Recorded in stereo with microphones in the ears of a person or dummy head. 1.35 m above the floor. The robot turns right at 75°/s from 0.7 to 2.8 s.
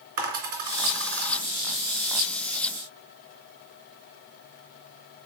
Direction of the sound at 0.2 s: 50° right (ahead or behind).